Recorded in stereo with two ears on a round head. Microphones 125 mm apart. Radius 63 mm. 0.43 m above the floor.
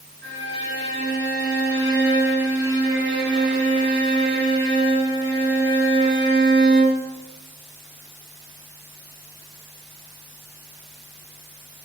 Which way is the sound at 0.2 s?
15° left (ahead or behind).